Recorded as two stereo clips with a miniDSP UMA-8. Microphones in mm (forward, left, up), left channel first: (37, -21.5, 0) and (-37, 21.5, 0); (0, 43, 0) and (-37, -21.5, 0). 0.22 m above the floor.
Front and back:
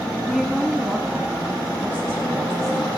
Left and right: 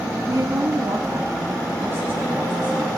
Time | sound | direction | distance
0.3 | a woman speaking | 120° right | 2 m